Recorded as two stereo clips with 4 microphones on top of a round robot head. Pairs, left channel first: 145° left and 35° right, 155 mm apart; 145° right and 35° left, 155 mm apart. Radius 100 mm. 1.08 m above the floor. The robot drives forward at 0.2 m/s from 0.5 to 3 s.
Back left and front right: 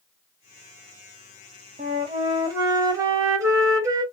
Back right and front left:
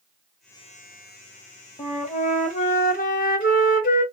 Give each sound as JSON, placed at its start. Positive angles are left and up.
{"t": 1.8, "sound": "a flute", "azimuth_deg": -85, "distance_m": 0.8}